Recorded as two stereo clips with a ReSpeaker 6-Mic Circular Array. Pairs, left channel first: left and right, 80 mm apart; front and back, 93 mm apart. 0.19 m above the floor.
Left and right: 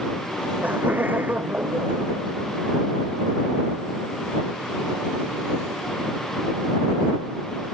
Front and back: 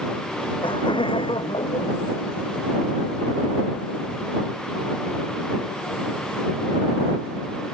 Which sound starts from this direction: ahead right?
Laughter, at 0.6 s.